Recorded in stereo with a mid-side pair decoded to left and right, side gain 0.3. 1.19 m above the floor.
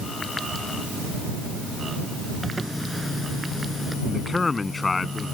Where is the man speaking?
40° left.